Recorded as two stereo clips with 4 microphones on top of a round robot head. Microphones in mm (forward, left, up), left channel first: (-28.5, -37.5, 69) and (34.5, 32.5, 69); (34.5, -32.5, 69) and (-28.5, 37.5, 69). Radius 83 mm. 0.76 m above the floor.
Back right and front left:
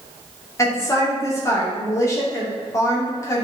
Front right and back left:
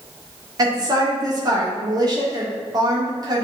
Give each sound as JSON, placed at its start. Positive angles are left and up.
{"t": 0.6, "sound": "a woman speaking", "azimuth_deg": 175, "distance_m": 2.5}